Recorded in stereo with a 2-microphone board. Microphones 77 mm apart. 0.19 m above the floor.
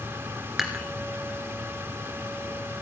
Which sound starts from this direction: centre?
Dishes clattering, at 0.6 s.